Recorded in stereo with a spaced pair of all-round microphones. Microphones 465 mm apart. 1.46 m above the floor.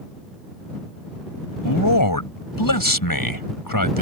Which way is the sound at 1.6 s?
45° left (ahead or behind).